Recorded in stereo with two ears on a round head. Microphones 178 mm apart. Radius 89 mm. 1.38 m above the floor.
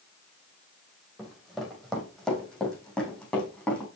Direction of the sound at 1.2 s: Centre (ahead or behind).